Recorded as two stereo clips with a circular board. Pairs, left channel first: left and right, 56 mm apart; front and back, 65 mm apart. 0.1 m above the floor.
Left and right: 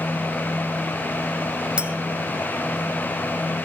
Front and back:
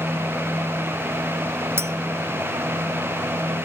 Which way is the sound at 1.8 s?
155° right.